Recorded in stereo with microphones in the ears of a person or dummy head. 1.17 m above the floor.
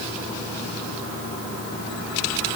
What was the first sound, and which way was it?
Only background noise.